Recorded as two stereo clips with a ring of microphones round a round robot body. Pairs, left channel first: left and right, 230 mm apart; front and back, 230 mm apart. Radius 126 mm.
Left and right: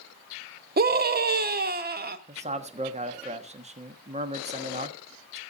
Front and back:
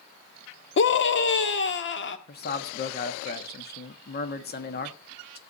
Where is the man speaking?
35° right, 1.4 m.